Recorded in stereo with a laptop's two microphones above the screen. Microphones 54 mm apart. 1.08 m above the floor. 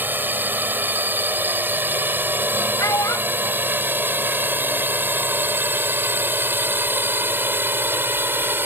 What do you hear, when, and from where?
0.0 s a drone: 35° right (ahead or behind); by 8.7 s 40° right (ahead or behind)
2.8 s a child speaking: 85° left